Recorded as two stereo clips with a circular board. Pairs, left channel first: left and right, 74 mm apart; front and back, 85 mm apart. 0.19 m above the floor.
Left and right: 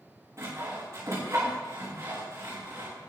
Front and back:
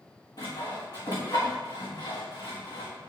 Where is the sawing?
35° right, 4 m.